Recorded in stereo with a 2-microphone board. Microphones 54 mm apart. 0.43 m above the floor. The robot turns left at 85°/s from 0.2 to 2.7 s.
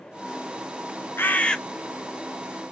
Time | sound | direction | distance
1.2 | a bird | 50° left | 0.6 m